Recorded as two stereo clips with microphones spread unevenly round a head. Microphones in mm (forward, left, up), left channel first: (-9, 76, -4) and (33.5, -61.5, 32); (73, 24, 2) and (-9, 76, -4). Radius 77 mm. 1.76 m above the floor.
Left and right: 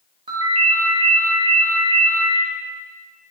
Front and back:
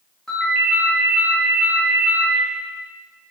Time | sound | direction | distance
0.3 | a ringtone | 115° right | 1.6 m